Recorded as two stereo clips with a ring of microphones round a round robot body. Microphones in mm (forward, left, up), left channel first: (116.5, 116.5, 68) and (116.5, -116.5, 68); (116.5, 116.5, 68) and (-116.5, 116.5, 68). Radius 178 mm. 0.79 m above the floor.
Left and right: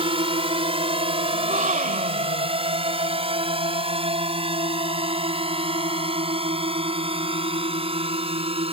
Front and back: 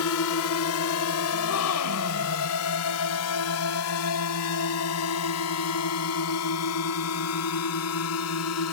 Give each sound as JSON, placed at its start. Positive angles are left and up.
{"t": 0.0, "sound": "a drone", "azimuth_deg": -25}
{"t": 1.3, "sound": "a gasp", "azimuth_deg": -30}